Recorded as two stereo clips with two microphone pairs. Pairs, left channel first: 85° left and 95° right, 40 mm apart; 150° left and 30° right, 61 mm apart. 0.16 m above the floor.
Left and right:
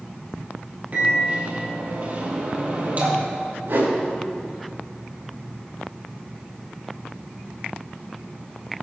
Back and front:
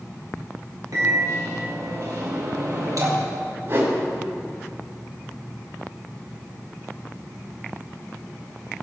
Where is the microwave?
45° right, 3 m.